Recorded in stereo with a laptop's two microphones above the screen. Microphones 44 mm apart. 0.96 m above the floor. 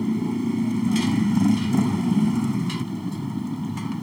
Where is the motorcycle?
5° right (ahead or behind).